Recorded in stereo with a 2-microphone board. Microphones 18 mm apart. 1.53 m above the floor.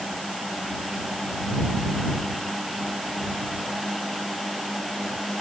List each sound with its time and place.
Only background noise.